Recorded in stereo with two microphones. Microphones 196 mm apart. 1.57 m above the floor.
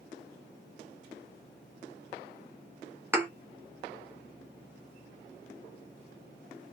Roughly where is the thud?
Centre.